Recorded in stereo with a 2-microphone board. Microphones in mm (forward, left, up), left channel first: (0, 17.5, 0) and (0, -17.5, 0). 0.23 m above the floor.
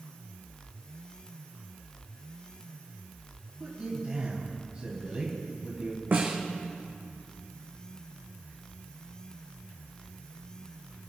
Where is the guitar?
I don't hear a guitar.